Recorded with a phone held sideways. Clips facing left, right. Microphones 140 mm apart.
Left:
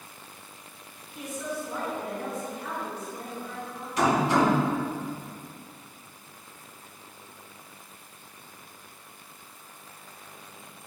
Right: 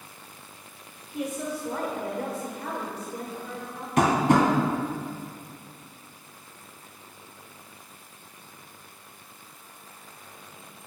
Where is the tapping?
60° right (ahead or behind), 1.8 m.